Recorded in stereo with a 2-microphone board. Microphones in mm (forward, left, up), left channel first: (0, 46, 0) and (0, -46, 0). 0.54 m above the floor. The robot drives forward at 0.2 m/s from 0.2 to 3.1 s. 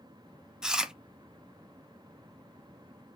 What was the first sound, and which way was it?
Chewing, 5° right (ahead or behind).